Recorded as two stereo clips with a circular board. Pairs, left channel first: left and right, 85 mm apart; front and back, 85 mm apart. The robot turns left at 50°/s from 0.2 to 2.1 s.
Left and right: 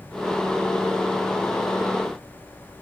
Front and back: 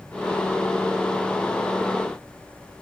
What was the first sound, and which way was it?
Only background noise.